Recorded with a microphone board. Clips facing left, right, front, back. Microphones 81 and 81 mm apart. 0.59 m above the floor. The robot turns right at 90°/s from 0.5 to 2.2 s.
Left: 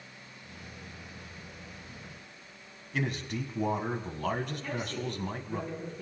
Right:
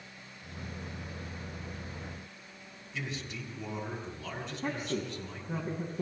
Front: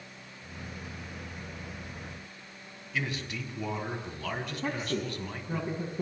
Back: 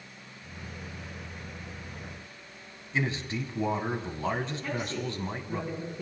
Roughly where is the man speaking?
Behind left.